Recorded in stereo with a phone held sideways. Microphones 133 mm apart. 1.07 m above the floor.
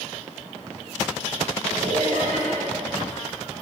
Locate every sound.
1.6 s laughter: 75° right (ahead or behind), 4 m